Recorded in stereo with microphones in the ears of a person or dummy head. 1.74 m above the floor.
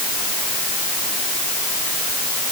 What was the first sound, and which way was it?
Only background noise.